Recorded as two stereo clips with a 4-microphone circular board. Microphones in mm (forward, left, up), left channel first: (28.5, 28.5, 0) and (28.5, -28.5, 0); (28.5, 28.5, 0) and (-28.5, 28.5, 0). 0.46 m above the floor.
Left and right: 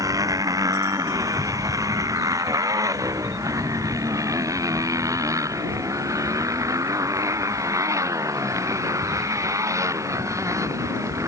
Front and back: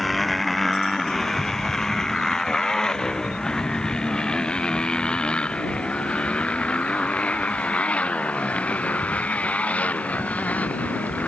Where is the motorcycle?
90° right; by 11.3 s 65° right.